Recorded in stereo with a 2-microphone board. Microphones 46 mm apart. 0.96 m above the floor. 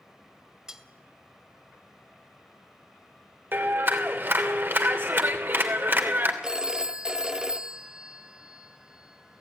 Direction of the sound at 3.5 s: 55° right (ahead or behind).